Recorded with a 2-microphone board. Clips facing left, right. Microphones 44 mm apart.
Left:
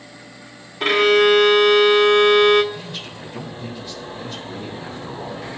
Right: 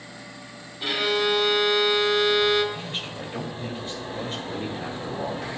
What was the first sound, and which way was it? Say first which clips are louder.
A violin: left 10 dB; 60° left (ahead or behind).